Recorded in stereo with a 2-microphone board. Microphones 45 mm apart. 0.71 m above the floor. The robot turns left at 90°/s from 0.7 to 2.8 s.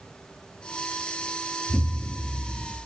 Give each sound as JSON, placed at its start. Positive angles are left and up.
{"t": 1.7, "sound": "an explosion", "azimuth_deg": -160, "distance_m": 2.0}